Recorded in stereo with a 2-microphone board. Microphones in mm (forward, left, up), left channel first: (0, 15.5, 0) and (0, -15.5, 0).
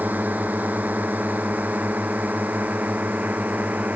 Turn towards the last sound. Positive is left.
turn(degrees=-55)  # may be behind; listen again after turning